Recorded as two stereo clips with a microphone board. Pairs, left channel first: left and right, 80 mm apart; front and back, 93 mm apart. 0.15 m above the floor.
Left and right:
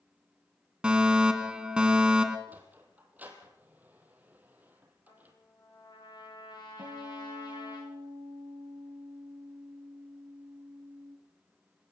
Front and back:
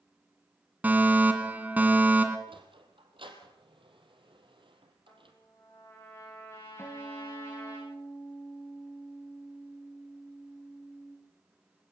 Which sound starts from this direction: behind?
A sliding door, at 2.5 s.